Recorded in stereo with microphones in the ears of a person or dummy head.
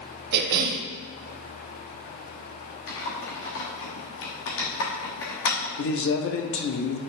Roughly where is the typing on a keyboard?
Left.